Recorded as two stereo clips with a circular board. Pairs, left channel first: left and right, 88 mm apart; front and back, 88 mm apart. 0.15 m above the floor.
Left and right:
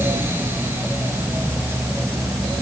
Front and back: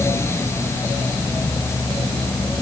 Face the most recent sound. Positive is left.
No sound to turn to.